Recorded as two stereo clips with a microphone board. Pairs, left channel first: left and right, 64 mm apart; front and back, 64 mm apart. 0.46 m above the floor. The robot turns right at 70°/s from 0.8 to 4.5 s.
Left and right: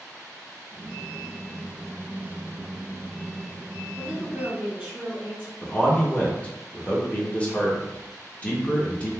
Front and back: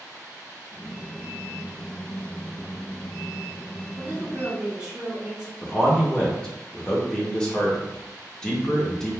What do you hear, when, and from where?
4.0 s a woman speaking: 165° right, 0.9 m; by 5.5 s 125° right, 0.9 m
5.6 s a man speaking: 60° left, 0.8 m